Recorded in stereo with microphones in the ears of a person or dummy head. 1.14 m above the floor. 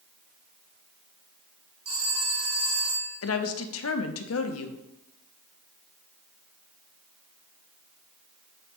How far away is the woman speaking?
About 0.6 m.